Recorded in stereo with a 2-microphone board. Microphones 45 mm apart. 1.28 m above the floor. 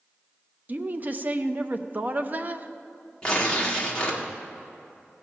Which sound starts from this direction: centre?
Tearing paper, at 3.2 s.